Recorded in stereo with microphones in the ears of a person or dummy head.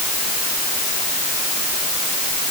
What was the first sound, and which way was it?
Only background noise.